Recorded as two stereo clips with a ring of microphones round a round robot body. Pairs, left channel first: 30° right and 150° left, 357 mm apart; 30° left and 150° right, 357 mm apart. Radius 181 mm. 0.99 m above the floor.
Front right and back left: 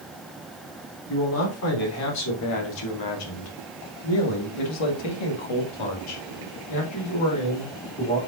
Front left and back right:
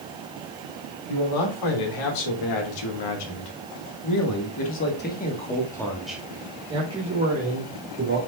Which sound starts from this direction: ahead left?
A man speaking, at 1.1 s.